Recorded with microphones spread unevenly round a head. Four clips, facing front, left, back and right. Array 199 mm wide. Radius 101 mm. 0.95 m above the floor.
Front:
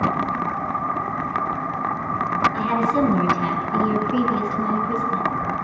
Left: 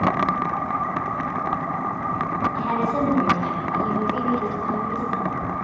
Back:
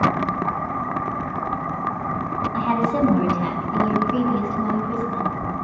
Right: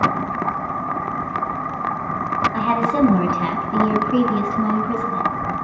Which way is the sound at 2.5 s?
115° right.